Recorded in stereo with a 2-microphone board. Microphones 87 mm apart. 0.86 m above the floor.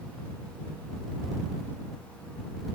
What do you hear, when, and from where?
Only background noise.